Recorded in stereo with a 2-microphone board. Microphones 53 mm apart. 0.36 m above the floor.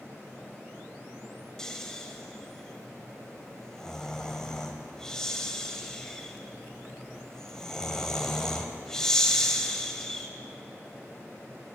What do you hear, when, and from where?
1.6 s snoring: 10° left (ahead or behind), 0.7 m